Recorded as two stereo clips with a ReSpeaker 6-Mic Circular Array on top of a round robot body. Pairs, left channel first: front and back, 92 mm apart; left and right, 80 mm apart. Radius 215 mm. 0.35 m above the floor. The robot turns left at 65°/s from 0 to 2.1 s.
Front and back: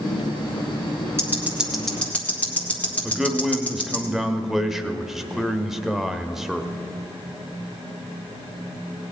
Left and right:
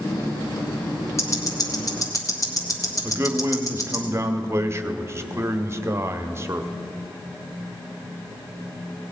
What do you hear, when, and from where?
1.2 s ticking: 130° left, 1.9 m; by 4.0 s 70° left, 1.9 m
3.0 s a man speaking: 95° right, 1.2 m